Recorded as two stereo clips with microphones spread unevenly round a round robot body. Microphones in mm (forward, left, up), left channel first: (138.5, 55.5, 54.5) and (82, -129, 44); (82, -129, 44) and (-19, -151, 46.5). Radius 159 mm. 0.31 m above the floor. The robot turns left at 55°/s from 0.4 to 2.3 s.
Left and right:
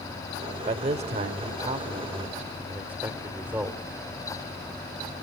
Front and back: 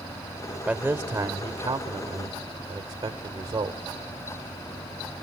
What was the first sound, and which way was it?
A man speaking, 85° right.